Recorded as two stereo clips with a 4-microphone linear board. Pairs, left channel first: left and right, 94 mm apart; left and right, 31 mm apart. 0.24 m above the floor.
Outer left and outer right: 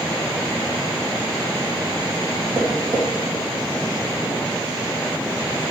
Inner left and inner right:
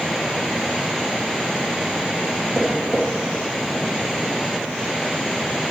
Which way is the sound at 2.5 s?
50° right (ahead or behind).